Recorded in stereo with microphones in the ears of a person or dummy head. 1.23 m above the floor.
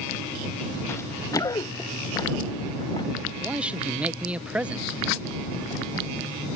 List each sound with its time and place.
0.9 s running footsteps: 15° left (ahead or behind); by 3.1 s 25° left (ahead or behind)
3.4 s a man speaking: 5° right (ahead or behind)